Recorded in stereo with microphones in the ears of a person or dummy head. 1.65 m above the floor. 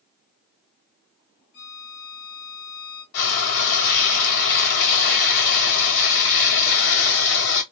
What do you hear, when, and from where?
1.5 s a violin: 50° left (ahead or behind), 1.7 m
3.1 s frying: 65° left (ahead or behind), 1.5 m